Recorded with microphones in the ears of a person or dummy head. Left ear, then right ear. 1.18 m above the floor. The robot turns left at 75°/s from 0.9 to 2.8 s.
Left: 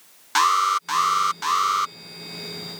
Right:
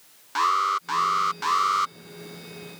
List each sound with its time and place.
0.3 s an alarm: 20° left (ahead or behind); by 1.9 s 5° left (ahead or behind)